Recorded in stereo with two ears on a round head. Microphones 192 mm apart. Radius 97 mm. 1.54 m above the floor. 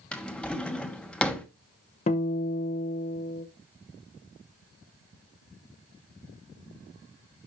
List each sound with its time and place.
0.1 s a drawer: 5° left (ahead or behind), 1.0 m
2.1 s a guitar: 30° left (ahead or behind), 0.8 m